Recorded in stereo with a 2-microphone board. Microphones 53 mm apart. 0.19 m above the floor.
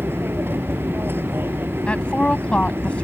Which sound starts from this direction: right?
An aircraft, at 0.0 s.